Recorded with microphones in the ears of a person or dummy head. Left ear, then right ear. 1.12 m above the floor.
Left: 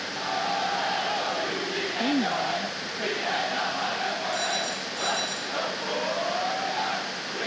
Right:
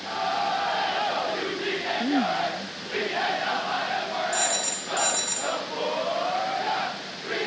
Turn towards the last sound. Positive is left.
turn(degrees=-35)  # may be behind; listen again after turning